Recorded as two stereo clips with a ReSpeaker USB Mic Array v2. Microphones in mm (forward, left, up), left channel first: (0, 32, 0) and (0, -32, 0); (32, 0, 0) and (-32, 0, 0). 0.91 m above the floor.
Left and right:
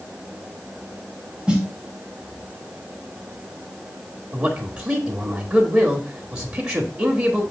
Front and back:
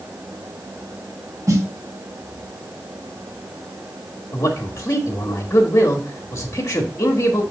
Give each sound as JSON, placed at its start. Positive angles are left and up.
{"t": 1.5, "sound": "a snare drum", "azimuth_deg": -165, "distance_m": 1.9}
{"t": 4.3, "sound": "a man speaking", "azimuth_deg": -40, "distance_m": 1.4}